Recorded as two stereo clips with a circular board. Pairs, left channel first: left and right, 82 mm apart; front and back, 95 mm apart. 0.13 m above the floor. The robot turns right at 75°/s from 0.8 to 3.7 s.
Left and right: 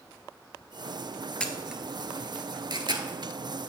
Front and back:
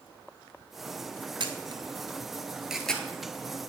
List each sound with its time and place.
1.4 s a camera shutter: 165° left, 0.7 m; by 3.1 s 70° right, 0.7 m